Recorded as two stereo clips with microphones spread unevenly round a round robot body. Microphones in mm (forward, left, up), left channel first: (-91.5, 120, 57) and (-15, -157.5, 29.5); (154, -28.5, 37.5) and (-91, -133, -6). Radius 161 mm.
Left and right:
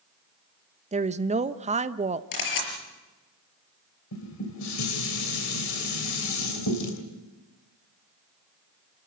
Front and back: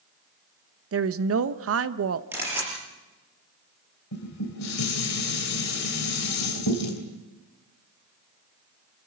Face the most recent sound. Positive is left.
turn(degrees=65)